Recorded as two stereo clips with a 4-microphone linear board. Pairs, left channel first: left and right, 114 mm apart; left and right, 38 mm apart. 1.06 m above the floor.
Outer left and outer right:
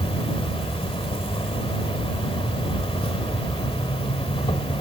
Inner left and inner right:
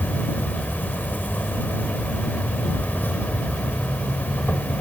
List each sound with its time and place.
0.0 s an insect: 55° left (ahead or behind)